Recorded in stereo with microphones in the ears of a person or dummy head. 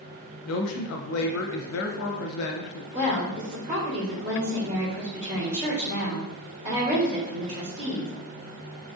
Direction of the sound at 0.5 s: 80° left.